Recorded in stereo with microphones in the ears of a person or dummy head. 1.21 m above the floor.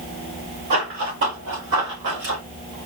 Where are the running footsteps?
50° right (ahead or behind), 3.5 m; by 2.4 s 60° right (ahead or behind), 3 m.